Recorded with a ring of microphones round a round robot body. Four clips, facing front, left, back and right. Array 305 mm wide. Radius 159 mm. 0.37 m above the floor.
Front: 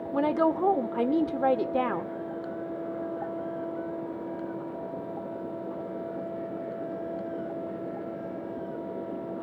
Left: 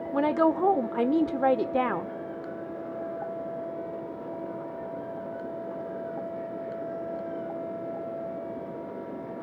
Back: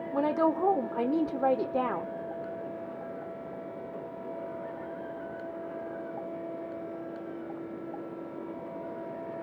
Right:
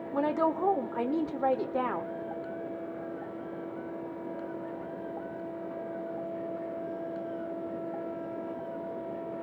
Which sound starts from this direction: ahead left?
A woman speaking, at 0.1 s.